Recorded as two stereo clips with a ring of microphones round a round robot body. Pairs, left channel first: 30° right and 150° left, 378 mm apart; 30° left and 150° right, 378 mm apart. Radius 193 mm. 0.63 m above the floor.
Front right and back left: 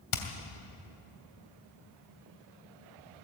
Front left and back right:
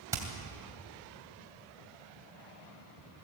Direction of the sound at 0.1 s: 70° right.